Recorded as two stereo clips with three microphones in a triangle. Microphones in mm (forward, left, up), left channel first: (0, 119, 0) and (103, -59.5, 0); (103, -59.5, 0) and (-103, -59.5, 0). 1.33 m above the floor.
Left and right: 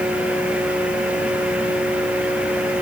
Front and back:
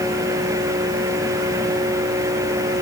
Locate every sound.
Only background noise.